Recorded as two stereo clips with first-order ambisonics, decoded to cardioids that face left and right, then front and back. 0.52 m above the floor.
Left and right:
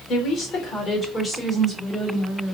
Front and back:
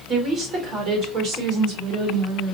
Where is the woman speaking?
125° left, 1.9 m; by 2.6 s 165° right, 2.5 m.